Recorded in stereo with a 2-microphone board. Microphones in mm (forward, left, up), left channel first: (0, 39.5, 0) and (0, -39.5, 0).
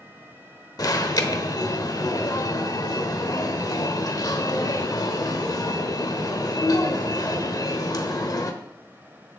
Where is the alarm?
50° left (ahead or behind), 1.0 m.